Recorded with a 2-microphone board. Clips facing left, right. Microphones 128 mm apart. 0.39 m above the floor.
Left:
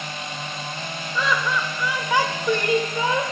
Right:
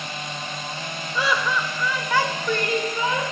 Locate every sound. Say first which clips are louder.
1.1 s laughter: even; 10° right (ahead or behind), 0.9 m; by 3.2 s 35° left (ahead or behind), 1.4 m